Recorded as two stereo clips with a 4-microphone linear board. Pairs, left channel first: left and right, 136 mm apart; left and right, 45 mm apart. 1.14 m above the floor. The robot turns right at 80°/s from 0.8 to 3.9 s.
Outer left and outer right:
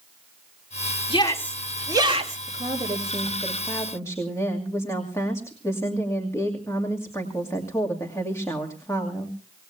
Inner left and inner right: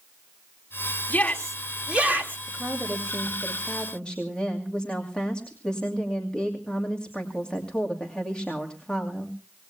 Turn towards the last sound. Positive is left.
turn(degrees=20)